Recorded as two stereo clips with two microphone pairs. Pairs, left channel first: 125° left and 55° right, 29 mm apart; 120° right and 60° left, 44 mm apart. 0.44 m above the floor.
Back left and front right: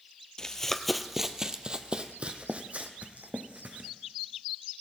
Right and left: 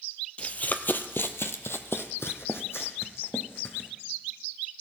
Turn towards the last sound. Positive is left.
turn(degrees=-90)